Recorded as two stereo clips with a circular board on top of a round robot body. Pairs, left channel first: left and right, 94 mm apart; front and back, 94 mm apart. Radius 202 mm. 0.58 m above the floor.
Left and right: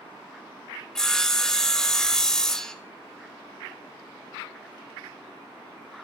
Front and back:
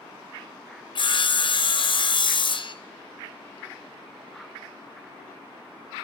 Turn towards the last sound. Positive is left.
turn(degrees=5)